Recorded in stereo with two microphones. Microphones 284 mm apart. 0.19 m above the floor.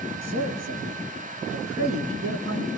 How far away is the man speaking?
About 4 m.